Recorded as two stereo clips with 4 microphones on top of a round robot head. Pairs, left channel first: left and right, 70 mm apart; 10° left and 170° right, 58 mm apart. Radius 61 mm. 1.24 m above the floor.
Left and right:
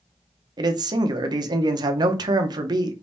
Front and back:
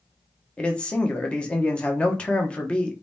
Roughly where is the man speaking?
Ahead right.